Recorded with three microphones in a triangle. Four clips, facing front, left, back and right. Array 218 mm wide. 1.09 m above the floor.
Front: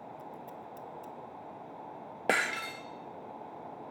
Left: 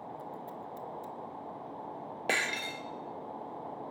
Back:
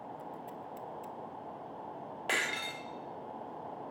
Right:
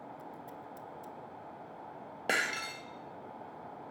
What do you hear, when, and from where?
0.2 s scissors: 140° left, 1.3 m
2.3 s breaking glass: 10° left, 1.9 m